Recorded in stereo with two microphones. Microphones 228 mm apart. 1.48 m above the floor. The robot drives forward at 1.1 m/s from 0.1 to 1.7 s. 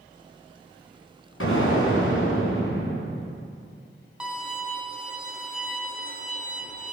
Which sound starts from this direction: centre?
A violin, at 4.2 s.